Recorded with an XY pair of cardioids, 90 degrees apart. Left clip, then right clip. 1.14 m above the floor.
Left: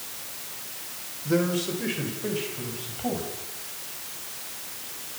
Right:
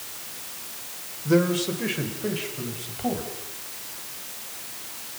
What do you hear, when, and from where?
1.2 s a man speaking: 30° right, 5 m; by 3.3 s 20° right, 7.5 m